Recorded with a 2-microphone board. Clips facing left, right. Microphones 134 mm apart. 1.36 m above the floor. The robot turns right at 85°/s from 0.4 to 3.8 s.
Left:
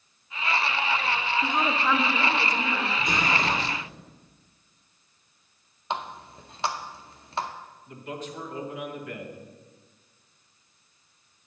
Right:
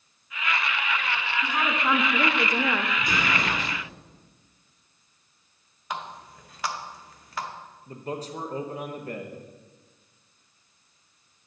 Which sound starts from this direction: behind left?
A woman speaking, at 1.4 s.